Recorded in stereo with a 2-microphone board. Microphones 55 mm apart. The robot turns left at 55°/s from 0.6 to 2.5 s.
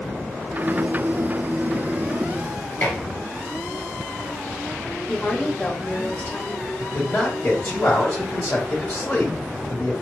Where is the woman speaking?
25° left (ahead or behind), 1.2 m.